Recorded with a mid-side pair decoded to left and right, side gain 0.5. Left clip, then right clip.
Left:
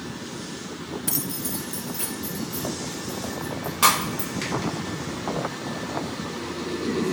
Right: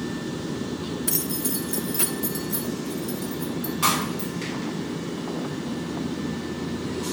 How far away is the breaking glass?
About 2.5 m.